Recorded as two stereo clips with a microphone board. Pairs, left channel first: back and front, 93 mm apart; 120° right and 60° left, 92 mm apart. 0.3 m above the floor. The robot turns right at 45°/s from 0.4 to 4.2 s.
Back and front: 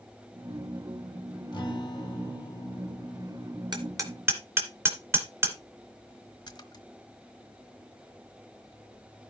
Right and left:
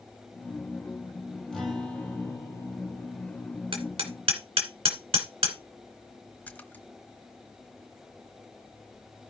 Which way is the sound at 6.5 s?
175° left.